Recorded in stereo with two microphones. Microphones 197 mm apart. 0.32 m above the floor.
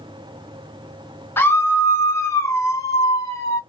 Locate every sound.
1.4 s a scream: 10° left (ahead or behind), 1.0 m; by 3.6 s 15° left (ahead or behind), 1.1 m